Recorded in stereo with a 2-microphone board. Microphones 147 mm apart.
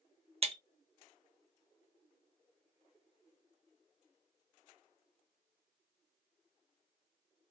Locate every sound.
0.4 s breaking glass: 45° right (ahead or behind), 0.6 m